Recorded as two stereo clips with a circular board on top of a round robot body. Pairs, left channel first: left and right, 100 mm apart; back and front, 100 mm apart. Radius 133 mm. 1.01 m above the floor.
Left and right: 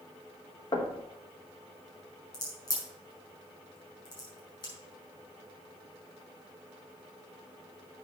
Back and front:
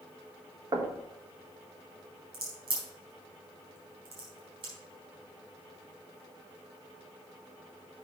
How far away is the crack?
About 4.5 m.